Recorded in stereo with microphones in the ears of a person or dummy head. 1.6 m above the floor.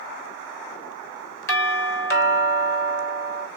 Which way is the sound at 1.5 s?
15° left (ahead or behind).